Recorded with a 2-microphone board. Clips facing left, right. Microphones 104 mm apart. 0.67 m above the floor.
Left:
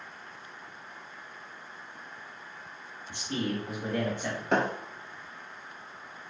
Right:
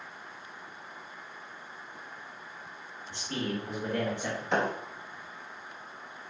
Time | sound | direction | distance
3.1 | a man speaking | 20° left (ahead or behind) | 1.4 m
4.5 | a thud | 55° left (ahead or behind) | 1.0 m